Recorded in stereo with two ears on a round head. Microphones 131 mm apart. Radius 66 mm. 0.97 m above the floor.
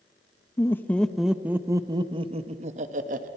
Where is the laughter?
20° left (ahead or behind), 1.0 m; by 3.3 s 60° right (ahead or behind), 1.4 m.